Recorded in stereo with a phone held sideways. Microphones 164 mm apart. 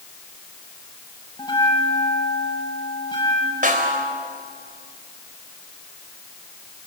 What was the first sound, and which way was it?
A bell, 30° left (ahead or behind).